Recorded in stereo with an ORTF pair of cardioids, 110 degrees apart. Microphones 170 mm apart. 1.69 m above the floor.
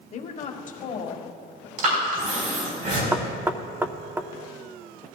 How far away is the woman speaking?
About 1.2 m.